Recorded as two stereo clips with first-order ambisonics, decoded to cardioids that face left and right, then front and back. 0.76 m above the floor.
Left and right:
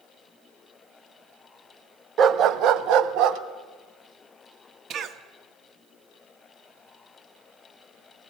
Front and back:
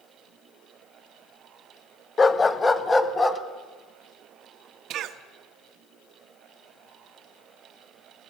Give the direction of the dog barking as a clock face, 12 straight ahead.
2 o'clock.